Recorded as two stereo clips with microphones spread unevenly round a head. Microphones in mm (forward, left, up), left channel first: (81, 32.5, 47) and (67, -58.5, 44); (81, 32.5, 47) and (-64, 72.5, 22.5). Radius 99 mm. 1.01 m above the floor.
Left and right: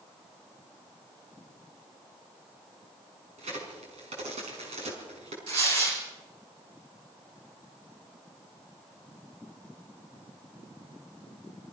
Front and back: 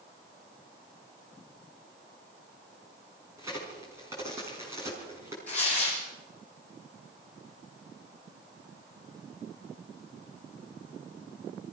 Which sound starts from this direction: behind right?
A crack, at 3.4 s.